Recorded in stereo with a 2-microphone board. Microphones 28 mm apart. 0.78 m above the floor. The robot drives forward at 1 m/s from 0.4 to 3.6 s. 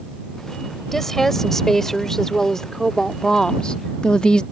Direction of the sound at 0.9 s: 10° left (ahead or behind).